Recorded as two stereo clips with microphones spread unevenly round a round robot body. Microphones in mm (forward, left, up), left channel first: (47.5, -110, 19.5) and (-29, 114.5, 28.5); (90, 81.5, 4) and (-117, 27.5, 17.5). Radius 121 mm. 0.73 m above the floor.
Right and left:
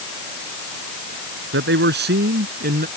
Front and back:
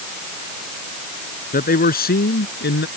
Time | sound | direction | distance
1.5 | a man speaking | 65° left | ?